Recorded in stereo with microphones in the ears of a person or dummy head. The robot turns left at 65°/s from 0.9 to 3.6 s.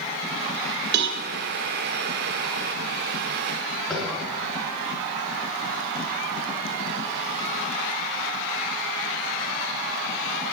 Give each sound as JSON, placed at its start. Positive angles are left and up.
{"t": 0.9, "sound": "a cowbell", "side_deg": -60, "distance_m": 2.5}
{"t": 3.9, "sound": "tapping", "side_deg": 5, "distance_m": 7.5}